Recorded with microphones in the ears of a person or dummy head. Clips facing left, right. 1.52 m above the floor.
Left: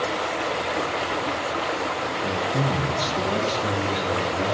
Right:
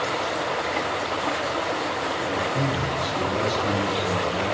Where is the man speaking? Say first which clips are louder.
Left 1 dB; 40° left (ahead or behind), 0.9 m.